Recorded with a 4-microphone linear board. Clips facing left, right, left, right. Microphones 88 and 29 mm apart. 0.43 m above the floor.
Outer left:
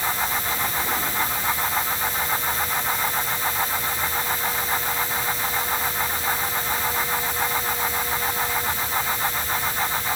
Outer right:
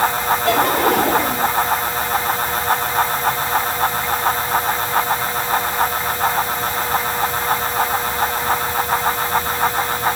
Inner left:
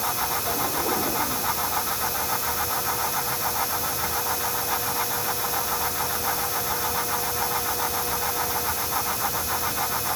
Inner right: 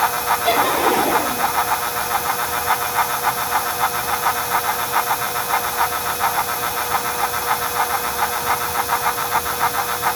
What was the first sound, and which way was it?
Laughter, 70° right (ahead or behind).